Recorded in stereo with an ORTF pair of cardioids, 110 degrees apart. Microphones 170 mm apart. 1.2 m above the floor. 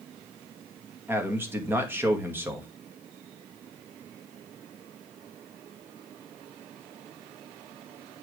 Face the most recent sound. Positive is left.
turn(degrees=-15)